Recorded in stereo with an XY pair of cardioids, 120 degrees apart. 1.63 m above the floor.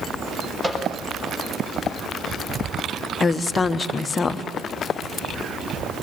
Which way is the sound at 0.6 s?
20° right.